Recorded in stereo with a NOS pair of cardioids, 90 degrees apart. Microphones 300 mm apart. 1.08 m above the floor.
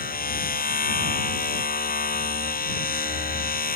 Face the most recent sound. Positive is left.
turn(degrees=30)